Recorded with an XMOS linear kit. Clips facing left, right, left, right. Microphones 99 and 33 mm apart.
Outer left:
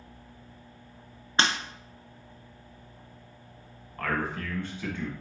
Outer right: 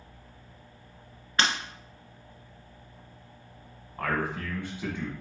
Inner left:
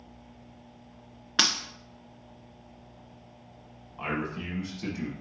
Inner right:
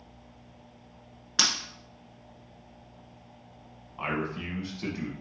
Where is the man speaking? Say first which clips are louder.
Outer right 1 dB, inner right 1 dB; 15° right (ahead or behind), 1.2 m.